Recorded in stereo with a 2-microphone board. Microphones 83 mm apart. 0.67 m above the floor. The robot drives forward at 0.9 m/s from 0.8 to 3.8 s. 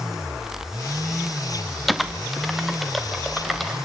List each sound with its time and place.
1.9 s typing on a keyboard: centre (ahead or behind), 0.5 m